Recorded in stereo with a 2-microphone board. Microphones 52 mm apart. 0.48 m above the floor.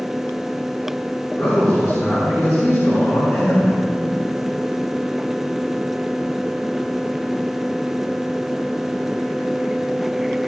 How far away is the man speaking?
About 5 m.